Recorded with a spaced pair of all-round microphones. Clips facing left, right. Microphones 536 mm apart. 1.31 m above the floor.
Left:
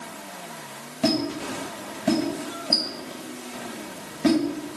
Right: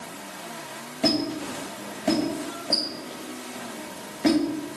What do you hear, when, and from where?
1.0 s a squeak: 30° left (ahead or behind), 3 m